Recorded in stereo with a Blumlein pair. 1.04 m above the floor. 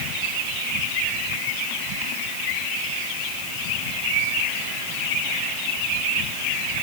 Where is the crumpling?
No crumpling in this recording.